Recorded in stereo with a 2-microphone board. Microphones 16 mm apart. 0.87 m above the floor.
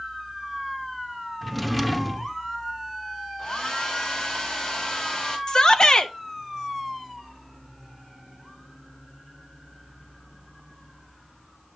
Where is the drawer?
Centre (ahead or behind), 0.5 m.